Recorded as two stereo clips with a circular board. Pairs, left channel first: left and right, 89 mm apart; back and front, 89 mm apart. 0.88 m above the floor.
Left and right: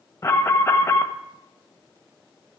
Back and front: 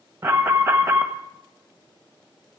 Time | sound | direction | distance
0.2 | an alarm | 55° left | 1.3 m